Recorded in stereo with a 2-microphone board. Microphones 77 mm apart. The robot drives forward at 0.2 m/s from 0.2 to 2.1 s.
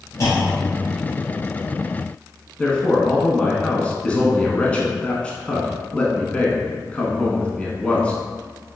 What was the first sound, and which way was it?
A clunk, 45° left (ahead or behind).